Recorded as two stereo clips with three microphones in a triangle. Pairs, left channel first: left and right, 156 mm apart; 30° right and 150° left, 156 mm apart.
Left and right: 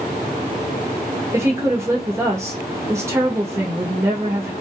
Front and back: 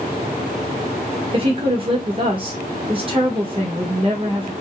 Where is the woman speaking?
160° right, 1.2 m.